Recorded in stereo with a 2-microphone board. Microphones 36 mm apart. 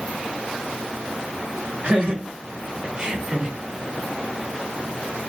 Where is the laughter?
35° right (ahead or behind), 3 m; by 3.5 s 20° right (ahead or behind), 2.0 m.